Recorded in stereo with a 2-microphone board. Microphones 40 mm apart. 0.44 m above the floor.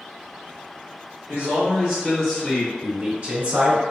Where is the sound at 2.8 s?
35° right (ahead or behind), 1.8 m.